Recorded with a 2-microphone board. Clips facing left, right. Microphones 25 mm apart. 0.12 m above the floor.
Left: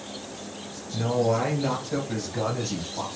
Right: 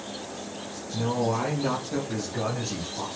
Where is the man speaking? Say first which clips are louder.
Left 3 dB; 20° left (ahead or behind), 1.5 m; by 3.1 s 30° left (ahead or behind), 3.5 m.